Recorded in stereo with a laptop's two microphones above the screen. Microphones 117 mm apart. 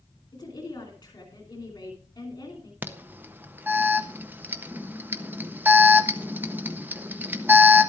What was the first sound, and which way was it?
A woman speaking, 35° left (ahead or behind).